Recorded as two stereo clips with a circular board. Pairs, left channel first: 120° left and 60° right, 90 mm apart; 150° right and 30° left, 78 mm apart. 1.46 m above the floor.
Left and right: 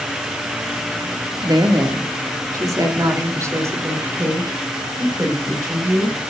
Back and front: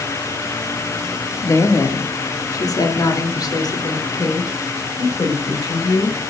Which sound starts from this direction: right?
A woman speaking, at 1.4 s.